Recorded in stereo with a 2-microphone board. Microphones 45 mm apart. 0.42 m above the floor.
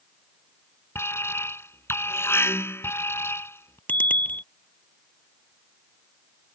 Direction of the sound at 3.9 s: 40° left (ahead or behind).